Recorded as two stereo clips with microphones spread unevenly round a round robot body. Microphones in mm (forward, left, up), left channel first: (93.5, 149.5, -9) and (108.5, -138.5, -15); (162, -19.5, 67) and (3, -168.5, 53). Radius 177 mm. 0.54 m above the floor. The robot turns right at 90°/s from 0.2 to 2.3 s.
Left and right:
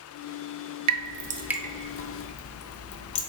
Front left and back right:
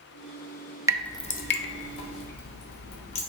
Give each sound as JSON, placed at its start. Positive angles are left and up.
{"t": 0.9, "sound": "dripping", "azimuth_deg": -60, "distance_m": 0.5}